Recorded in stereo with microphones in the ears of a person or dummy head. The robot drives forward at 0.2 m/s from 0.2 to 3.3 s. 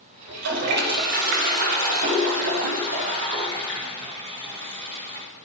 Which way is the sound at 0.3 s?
65° right (ahead or behind).